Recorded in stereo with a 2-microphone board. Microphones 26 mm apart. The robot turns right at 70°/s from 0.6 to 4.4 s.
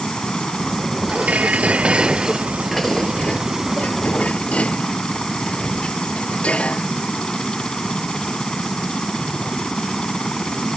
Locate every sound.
0.0 s a helicopter: 140° left; by 10.8 s 45° left
1.1 s dishes clattering: 105° right; by 6.9 s 125° left